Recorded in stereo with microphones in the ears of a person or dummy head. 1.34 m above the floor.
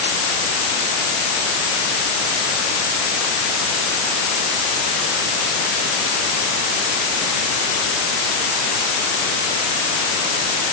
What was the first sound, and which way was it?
Only background noise.